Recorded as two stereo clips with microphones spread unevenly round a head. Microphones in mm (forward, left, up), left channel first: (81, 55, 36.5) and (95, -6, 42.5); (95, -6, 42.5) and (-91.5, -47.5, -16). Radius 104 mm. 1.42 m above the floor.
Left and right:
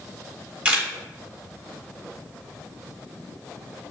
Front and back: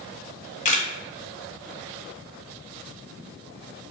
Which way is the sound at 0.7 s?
15° right.